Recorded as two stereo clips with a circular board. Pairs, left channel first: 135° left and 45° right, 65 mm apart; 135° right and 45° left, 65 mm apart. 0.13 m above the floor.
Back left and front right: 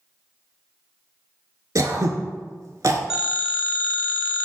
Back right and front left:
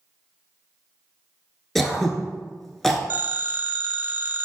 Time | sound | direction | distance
1.8 | throat clearing | 50° right | 0.5 m
3.1 | a phone ringing | 30° left | 0.7 m